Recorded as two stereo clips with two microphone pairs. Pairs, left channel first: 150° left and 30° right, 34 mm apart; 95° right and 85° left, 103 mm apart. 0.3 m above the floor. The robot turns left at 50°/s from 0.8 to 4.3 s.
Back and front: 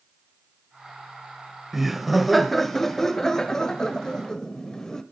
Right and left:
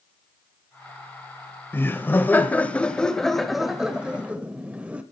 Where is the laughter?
100° right, 1.0 m; by 5.0 s 130° left, 1.0 m.